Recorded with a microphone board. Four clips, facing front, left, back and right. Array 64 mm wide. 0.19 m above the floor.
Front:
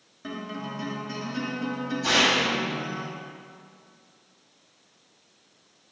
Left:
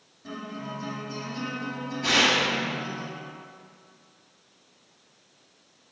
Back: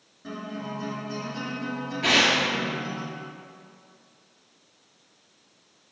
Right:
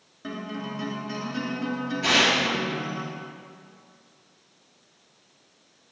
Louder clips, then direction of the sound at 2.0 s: Right 1 dB, back 1 dB; 160° right.